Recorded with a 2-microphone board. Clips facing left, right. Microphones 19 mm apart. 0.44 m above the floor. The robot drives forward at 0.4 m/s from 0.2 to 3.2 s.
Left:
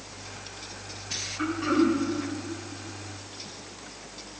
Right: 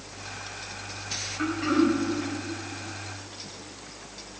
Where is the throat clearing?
15° left (ahead or behind), 1.6 m.